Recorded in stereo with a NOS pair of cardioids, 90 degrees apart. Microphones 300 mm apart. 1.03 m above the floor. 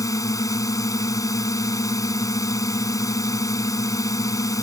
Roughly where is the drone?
Ahead.